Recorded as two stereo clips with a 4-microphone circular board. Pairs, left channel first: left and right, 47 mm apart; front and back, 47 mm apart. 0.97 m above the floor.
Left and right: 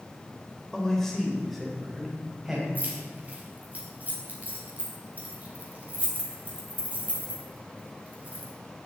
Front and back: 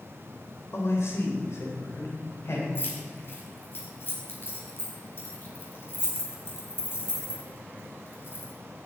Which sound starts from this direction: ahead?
A man speaking, at 0.7 s.